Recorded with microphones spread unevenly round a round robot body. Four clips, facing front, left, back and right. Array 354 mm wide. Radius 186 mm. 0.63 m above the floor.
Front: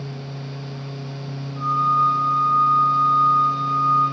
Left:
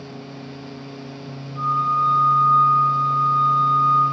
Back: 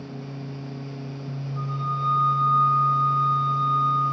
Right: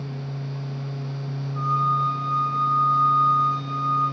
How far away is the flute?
About 1.3 m.